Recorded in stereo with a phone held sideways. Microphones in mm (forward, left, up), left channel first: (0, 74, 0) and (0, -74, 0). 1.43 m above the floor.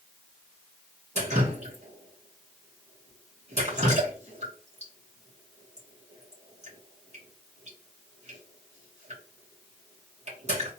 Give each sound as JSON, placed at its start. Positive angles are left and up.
{"t": 1.1, "sound": "dripping", "side_deg": -50, "distance_m": 2.0}